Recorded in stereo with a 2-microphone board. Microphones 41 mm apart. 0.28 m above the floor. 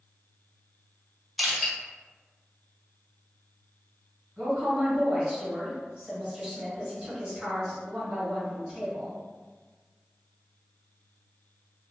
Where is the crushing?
Centre (ahead or behind), 1.1 m.